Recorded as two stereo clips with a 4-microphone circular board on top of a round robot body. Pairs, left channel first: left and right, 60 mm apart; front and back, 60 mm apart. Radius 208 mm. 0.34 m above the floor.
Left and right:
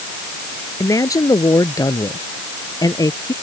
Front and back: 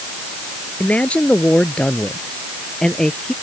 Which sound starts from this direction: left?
A man speaking, at 0.8 s.